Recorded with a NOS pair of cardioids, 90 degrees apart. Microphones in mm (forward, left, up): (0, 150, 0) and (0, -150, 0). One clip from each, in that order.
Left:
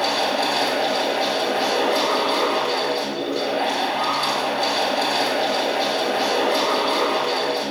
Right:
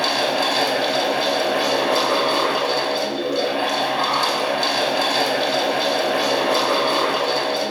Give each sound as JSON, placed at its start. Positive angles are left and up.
{"t": 0.0, "sound": "a fan", "azimuth_deg": -40, "distance_m": 2.5}